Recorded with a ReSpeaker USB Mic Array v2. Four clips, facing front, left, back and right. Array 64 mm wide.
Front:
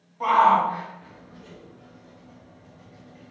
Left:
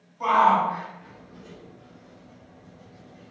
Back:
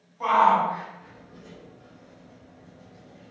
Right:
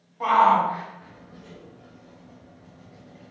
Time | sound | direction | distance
0.2 | a shout | 80° right | 1.3 m